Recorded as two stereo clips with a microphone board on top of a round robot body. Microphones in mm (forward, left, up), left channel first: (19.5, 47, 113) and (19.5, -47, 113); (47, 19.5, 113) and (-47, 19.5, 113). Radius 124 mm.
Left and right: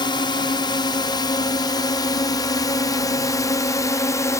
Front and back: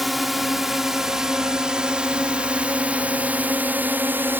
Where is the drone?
90° left; by 4.4 s 125° left.